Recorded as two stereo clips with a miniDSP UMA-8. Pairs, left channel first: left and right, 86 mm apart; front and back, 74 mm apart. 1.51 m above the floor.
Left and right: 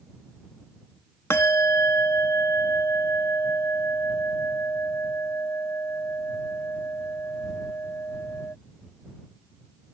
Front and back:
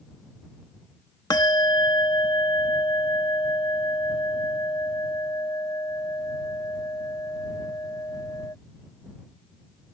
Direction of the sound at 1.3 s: 35° left.